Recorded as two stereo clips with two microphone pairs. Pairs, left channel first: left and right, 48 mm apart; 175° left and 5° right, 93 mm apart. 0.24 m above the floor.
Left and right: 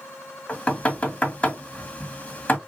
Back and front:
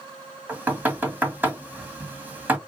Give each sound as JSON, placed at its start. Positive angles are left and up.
{"t": 0.5, "sound": "knocking", "azimuth_deg": 55, "distance_m": 1.5}